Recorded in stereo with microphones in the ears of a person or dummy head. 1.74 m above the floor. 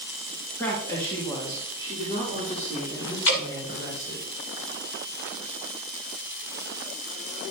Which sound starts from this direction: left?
Dripping, at 3.2 s.